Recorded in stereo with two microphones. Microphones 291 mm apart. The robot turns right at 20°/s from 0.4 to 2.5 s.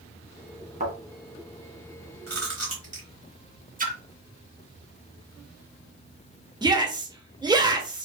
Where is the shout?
15° right (ahead or behind), 1.0 m.